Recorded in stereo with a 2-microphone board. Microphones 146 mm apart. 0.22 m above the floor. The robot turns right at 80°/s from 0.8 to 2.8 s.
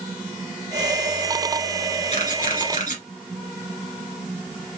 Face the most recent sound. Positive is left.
turn(degrees=60)  # may be behind; listen again after turning